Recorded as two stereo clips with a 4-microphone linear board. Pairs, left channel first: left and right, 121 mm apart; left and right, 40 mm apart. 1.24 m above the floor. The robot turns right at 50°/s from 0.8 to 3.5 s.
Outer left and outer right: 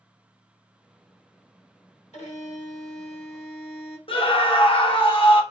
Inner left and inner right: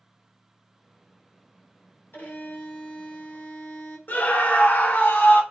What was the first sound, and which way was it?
A violin, 60° left.